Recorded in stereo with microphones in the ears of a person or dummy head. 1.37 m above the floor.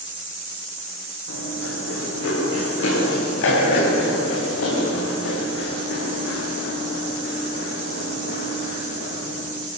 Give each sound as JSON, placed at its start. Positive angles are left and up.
{"t": 1.3, "sound": "running footsteps", "side_deg": 80, "distance_m": 9.0}